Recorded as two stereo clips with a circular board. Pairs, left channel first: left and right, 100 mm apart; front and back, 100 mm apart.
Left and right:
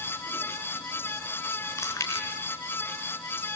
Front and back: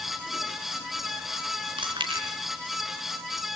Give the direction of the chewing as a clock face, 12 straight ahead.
7 o'clock.